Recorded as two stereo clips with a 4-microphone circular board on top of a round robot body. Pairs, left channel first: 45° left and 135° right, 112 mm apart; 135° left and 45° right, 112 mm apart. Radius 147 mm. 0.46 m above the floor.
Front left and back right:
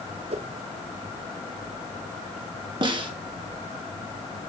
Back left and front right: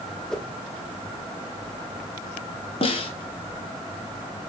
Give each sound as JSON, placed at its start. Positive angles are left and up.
{"t": 0.3, "sound": "a whoosh", "azimuth_deg": -140, "distance_m": 1.2}
{"t": 2.8, "sound": "a snare drum", "azimuth_deg": 175, "distance_m": 1.8}